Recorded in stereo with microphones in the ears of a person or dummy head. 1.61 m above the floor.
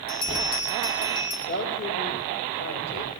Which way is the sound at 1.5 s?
60° left (ahead or behind).